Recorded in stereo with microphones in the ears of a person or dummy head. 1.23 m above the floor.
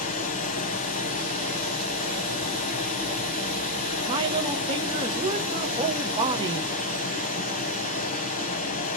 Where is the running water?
40° left (ahead or behind), 0.7 m.